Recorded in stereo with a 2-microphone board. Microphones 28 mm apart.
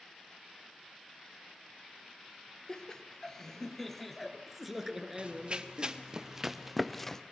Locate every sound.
2.7 s laughter: 30° left (ahead or behind), 3 m; by 5.9 s 30° right (ahead or behind), 2.5 m
5.2 s running footsteps: 40° right (ahead or behind), 2 m; by 7.2 s 15° left (ahead or behind), 1.4 m